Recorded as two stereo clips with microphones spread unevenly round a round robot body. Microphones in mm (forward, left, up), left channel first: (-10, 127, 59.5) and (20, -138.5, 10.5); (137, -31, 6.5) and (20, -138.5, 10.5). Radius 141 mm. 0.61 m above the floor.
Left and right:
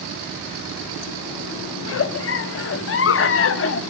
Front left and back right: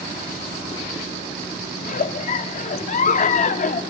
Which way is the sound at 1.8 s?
60° left.